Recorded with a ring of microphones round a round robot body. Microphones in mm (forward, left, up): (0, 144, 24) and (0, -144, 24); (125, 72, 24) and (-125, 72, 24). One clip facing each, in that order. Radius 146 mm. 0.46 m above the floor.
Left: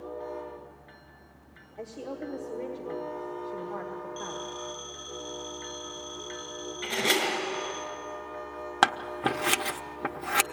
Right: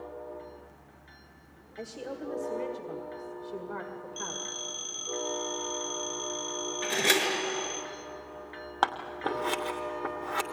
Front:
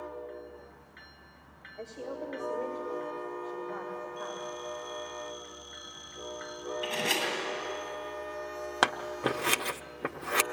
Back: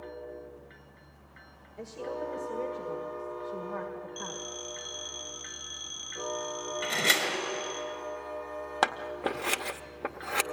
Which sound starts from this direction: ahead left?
Scissors, at 8.8 s.